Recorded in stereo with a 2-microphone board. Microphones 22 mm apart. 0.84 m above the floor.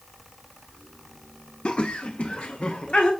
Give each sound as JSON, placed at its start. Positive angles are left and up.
{"t": 1.6, "sound": "laughter", "side_deg": 50, "distance_m": 0.6}